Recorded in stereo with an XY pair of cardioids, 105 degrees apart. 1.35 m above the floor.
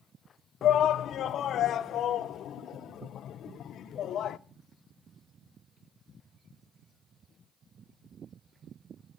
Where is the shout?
65° left, 0.7 m.